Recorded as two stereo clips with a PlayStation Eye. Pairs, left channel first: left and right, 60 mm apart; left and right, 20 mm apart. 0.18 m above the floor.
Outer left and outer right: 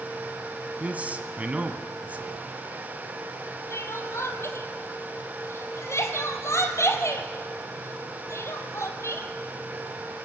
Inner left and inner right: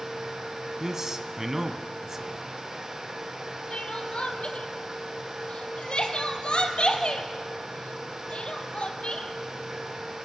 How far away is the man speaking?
About 1.5 m.